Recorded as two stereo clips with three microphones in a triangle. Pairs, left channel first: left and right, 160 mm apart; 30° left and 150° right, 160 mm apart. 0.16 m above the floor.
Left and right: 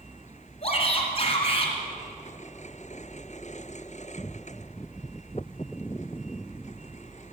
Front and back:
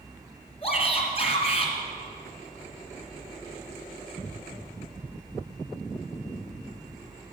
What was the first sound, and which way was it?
A shout, 55° left.